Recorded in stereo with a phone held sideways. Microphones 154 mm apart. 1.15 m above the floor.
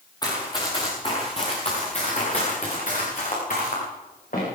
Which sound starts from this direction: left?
Running footsteps, at 0.2 s.